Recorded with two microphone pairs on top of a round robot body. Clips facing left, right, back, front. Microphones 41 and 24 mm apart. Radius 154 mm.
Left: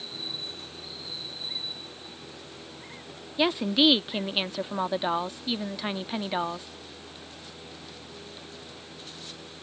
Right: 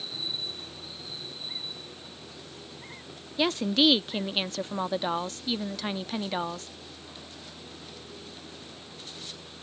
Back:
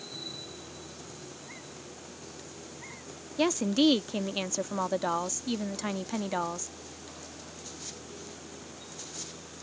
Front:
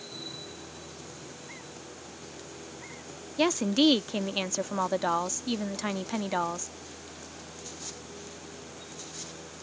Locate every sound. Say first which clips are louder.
3.4 s a woman speaking: left 1 dB, front 1 dB; 70° left